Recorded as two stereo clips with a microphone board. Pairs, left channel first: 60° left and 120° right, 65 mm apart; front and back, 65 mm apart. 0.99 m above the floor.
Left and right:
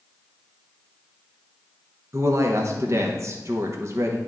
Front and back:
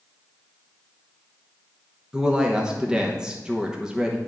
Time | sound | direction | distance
2.1 | a woman speaking | 105° right | 0.9 m